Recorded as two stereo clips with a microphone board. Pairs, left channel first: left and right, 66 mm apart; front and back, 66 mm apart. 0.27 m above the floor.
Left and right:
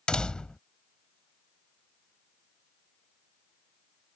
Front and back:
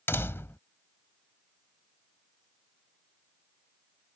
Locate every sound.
0.1 s a door slam: 20° left